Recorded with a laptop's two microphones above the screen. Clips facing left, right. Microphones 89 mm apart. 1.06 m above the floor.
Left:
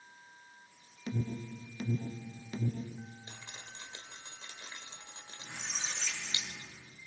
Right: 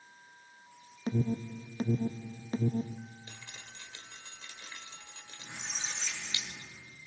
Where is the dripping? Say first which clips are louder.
Left 1 dB; 30° left (ahead or behind), 1.2 m.